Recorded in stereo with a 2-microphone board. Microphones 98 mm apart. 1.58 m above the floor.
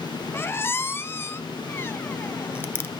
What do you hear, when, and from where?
0.3 s a squeak: 25° left (ahead or behind), 0.5 m